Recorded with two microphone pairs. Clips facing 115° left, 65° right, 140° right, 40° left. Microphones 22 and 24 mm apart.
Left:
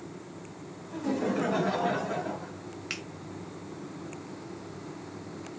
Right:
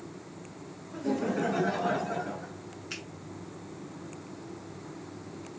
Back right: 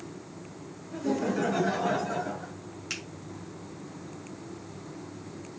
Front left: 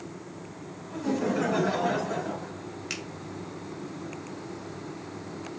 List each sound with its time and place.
0.9 s laughter: 85° left, 6 m; by 2.5 s 105° left, 6.5 m
2.9 s a finger snap: 115° left, 2 m